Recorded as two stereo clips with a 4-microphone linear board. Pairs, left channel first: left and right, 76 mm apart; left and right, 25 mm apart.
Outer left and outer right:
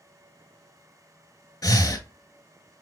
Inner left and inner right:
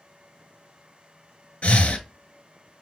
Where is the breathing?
55° left (ahead or behind), 0.6 m.